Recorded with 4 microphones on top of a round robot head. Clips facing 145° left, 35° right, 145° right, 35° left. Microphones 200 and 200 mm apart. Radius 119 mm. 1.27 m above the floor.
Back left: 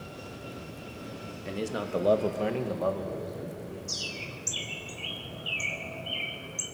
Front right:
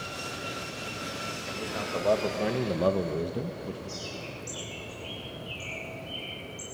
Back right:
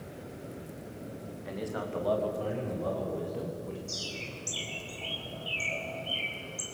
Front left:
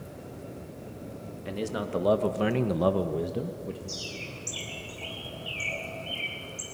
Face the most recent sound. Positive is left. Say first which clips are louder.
# front right 2 dB, front left 1 dB
turn(degrees=130)